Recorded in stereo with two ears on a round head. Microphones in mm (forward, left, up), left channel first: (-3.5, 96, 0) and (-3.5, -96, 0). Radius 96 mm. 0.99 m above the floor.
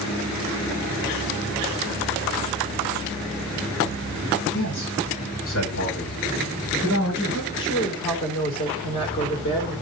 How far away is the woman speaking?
About 3 m.